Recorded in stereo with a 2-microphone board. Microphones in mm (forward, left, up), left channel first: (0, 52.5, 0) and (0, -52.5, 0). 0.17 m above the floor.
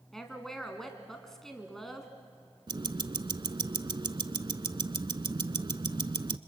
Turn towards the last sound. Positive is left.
turn(degrees=-45)  # may be behind; listen again after turning